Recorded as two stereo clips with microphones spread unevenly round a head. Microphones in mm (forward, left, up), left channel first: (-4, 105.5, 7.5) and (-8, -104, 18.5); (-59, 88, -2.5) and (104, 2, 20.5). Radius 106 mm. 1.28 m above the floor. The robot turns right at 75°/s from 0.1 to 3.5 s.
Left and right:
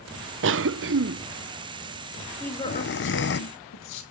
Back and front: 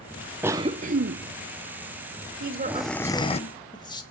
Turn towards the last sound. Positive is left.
turn(degrees=85)